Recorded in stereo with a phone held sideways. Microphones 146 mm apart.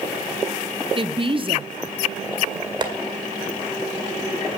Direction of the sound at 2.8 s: 30° right (ahead or behind).